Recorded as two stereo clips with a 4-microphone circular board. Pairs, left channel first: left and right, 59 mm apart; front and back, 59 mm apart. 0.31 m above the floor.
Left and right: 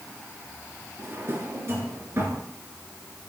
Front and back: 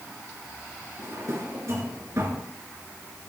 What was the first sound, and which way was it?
A drawer, 140° right.